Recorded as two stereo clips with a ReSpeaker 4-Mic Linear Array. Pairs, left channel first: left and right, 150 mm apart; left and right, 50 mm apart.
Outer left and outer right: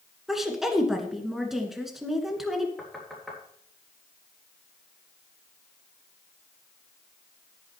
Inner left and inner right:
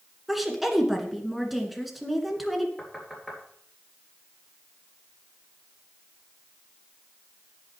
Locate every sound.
0.3 s a woman speaking: centre (ahead or behind), 2.5 m
2.8 s knocking: centre (ahead or behind), 3.5 m